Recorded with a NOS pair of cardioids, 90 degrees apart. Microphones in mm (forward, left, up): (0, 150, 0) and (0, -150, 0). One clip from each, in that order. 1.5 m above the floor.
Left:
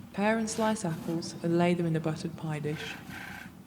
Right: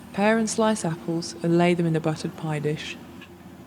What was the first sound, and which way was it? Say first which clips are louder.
A woman speaking: right 7 dB; 40° right.